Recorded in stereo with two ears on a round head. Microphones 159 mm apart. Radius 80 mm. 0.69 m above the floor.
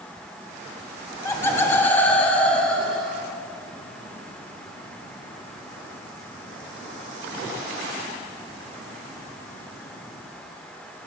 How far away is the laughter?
About 0.8 m.